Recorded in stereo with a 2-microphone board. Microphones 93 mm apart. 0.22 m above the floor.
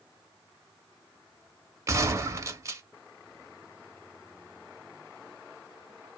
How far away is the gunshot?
About 0.6 m.